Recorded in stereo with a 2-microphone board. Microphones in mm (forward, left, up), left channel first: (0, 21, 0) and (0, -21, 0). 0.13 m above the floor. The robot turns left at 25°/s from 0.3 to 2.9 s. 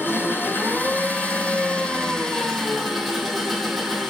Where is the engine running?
65° left, 3 m; by 4.1 s straight ahead, 3 m.